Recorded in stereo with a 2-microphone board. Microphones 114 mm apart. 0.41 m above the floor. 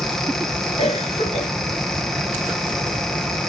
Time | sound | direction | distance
0.8 | a cough | 55° left (ahead or behind) | 6.5 m